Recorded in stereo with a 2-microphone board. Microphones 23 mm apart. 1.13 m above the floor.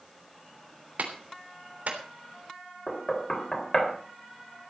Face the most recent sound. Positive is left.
turn(degrees=25)  # may be behind; listen again after turning